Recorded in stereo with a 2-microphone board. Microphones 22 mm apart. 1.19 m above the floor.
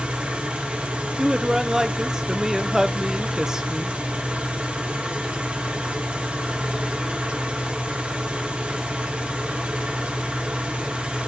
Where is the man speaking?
25° right (ahead or behind), 0.6 m.